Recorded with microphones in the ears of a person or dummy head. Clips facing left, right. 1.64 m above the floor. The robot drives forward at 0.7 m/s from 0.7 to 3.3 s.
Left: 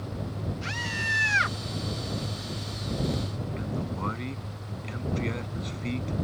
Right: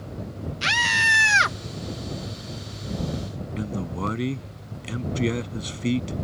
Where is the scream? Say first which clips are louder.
Right 5 dB; 70° right (ahead or behind); by 1.6 s 60° right (ahead or behind).